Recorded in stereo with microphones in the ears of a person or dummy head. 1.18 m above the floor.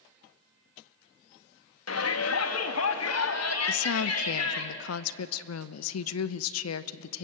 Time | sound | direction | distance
1.9 | a shout | 80° left | 1.8 m
3.6 | a woman speaking | 80° left | 0.7 m